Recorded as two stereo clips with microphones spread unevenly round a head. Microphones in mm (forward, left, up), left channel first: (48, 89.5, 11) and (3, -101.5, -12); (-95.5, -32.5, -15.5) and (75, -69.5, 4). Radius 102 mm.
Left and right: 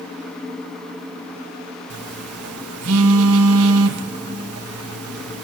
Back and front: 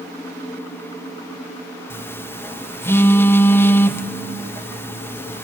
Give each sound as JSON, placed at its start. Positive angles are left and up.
{"t": 1.9, "sound": "a phone buzzing", "azimuth_deg": -115, "distance_m": 1.2}